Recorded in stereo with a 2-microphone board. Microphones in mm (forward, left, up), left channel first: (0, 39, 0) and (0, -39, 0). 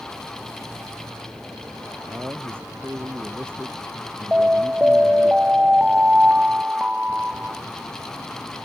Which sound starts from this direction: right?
A man speaking, at 2.1 s.